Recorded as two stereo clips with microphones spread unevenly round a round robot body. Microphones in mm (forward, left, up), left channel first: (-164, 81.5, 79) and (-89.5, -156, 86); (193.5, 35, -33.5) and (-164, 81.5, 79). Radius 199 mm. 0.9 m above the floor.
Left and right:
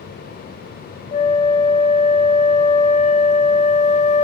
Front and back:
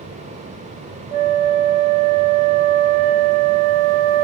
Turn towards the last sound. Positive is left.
turn(degrees=170)